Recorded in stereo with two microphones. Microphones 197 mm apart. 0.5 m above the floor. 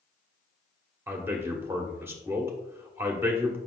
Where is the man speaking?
15° right (ahead or behind), 1.3 m.